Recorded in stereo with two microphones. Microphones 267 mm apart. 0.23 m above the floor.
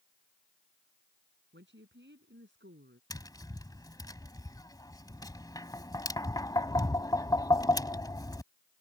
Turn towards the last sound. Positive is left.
turn(degrees=15)  # may be behind; listen again after turning